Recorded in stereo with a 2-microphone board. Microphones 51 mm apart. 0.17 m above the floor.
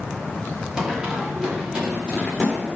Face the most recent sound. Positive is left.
turn(degrees=-15)  # may be behind; listen again after turning